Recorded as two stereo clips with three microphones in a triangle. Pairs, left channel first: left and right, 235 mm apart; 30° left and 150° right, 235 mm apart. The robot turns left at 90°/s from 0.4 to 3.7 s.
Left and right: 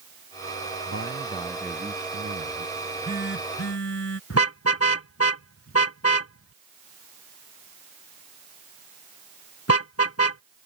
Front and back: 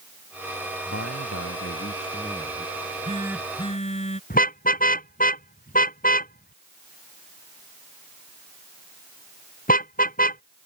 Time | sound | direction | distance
0.9 | a man speaking | 70° left | ?
2.8 | a phone buzzing | 175° left | ?
4.3 | a car horn | 85° left | ?